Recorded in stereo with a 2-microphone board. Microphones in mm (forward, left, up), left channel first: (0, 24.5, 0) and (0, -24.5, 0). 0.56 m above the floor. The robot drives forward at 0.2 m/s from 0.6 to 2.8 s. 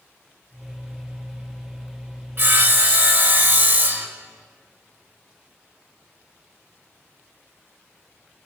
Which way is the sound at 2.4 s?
45° right (ahead or behind).